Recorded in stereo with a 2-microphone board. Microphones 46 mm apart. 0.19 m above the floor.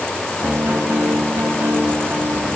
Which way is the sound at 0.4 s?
60° right (ahead or behind).